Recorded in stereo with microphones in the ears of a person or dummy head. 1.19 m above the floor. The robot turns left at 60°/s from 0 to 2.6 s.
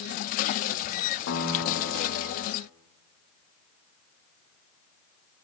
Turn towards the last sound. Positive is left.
turn(degrees=45)